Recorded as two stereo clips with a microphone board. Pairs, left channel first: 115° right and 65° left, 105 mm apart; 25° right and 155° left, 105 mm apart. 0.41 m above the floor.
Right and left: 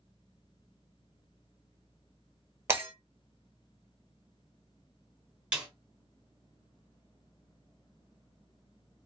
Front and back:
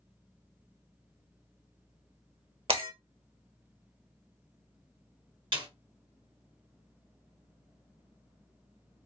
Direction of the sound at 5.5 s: 145° left.